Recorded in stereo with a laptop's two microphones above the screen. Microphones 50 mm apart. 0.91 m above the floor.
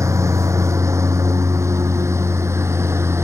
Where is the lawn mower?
85° right; by 3.2 s 65° right (ahead or behind).